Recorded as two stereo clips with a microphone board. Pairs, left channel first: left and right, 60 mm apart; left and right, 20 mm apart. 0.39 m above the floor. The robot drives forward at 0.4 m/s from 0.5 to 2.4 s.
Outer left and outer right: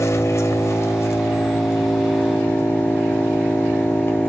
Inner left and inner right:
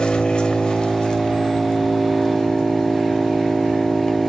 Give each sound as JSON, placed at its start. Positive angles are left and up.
{"t": 0.0, "sound": "an engine running", "side_deg": 50, "distance_m": 1.4}